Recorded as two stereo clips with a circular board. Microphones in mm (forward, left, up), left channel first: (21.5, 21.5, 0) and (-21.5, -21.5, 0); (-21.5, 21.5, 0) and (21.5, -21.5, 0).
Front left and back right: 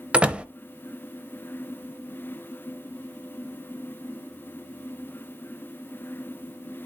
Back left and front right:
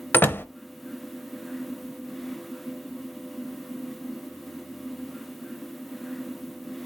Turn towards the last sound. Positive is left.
turn(degrees=165)